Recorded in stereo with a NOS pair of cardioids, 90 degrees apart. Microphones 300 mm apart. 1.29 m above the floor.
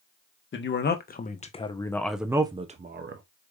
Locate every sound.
0.5 s a man speaking: 40° left, 1.3 m; by 3.2 s 45° right, 0.9 m